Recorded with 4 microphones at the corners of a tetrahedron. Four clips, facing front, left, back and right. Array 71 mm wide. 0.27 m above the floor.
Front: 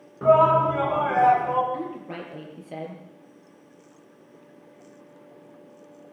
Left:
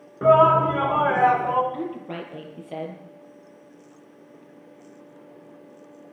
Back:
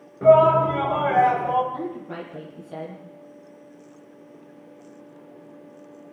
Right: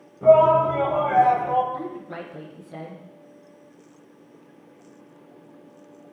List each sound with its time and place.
0.2 s a shout: 85° left, 4 m
1.7 s a woman speaking: 65° left, 5.5 m